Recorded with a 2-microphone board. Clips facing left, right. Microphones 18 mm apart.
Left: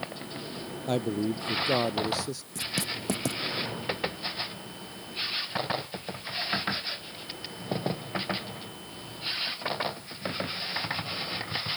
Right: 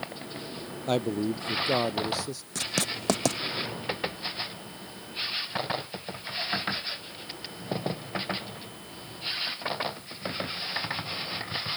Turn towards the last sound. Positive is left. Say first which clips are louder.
# right 3 dB
turn(degrees=-45)  # may be behind; listen again after turning